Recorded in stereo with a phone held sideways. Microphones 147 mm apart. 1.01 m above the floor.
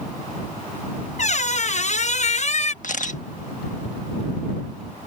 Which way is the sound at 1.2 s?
55° left (ahead or behind).